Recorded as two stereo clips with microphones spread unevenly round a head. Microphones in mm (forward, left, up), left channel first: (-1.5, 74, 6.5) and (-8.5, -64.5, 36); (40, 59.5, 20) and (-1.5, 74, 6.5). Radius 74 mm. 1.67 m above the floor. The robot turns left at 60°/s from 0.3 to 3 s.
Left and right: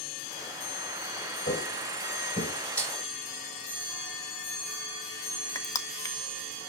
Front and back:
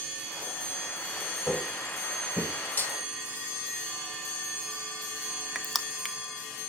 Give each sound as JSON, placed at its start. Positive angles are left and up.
{"t": 1.5, "sound": "footsteps", "azimuth_deg": 95, "distance_m": 3.5}
{"t": 2.8, "sound": "breaking glass", "azimuth_deg": 0, "distance_m": 1.7}
{"t": 5.5, "sound": "crushing", "azimuth_deg": 15, "distance_m": 0.8}